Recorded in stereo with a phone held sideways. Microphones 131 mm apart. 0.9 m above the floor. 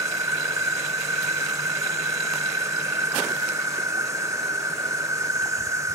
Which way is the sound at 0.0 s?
25° right (ahead or behind).